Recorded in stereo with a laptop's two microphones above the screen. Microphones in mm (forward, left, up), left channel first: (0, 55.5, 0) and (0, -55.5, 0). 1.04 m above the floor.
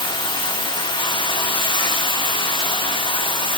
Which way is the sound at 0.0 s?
45° left (ahead or behind).